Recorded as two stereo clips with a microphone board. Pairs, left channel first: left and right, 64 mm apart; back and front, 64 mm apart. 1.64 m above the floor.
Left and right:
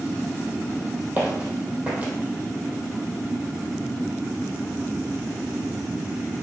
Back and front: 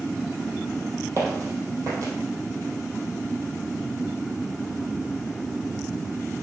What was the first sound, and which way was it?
Footsteps, 35° right.